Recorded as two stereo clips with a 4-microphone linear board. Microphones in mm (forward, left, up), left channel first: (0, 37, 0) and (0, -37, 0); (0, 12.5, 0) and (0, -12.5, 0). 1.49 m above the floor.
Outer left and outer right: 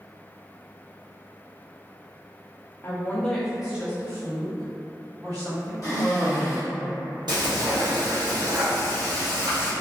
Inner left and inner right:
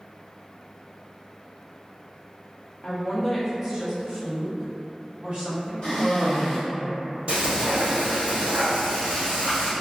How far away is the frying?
About 1.2 m.